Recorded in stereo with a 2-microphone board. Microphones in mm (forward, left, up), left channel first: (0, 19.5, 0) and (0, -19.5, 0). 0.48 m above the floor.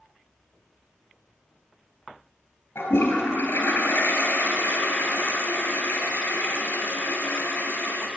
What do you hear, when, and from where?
2.8 s a toilet flushing: 75° left (ahead or behind), 3 m